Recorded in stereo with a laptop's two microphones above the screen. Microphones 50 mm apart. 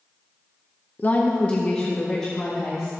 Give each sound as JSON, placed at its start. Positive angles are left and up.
{"t": 1.0, "sound": "a woman speaking", "side_deg": 35, "distance_m": 0.7}